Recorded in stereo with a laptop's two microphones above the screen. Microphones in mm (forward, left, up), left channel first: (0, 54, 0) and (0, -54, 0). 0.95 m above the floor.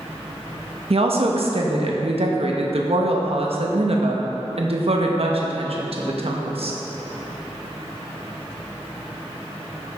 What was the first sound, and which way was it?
A woman speaking, 60° right (ahead or behind).